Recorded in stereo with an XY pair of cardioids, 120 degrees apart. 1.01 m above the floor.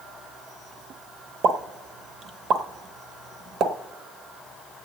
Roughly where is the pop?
Ahead right.